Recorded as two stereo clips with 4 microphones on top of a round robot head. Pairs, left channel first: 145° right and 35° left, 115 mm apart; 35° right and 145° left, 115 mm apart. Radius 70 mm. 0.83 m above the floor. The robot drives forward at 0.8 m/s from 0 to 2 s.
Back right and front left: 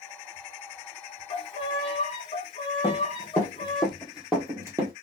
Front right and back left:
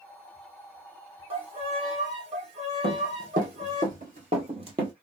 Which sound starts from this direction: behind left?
Running footsteps, at 2.8 s.